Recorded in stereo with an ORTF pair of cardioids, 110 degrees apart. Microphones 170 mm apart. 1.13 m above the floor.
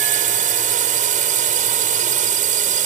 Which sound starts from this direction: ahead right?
A drone, at 0.0 s.